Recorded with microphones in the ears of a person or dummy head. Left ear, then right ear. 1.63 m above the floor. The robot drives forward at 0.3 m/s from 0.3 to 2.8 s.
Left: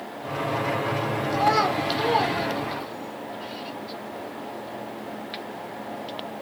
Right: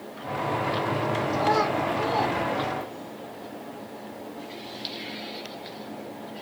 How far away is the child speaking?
About 0.7 m.